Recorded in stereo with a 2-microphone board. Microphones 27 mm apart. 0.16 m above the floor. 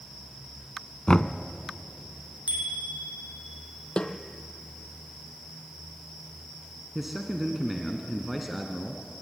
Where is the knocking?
30° left (ahead or behind), 0.8 m.